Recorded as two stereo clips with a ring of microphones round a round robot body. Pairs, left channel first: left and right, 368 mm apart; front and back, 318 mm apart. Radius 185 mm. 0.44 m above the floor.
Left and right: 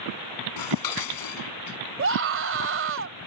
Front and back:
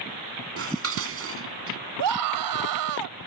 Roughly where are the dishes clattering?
Behind left.